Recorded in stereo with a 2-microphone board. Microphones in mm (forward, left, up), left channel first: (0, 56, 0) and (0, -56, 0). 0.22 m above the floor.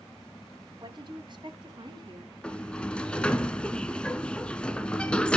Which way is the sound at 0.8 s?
45° right (ahead or behind).